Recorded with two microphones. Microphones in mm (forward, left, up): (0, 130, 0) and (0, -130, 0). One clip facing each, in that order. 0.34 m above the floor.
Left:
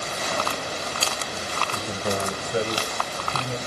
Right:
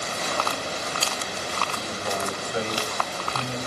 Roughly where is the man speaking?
Left.